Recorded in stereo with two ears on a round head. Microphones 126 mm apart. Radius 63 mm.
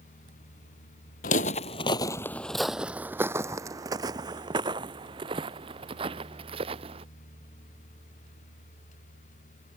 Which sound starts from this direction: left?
Footsteps, at 1.2 s.